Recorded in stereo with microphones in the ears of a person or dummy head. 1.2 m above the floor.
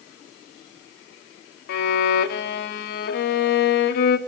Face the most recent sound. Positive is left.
turn(degrees=60)  # may be behind; listen again after turning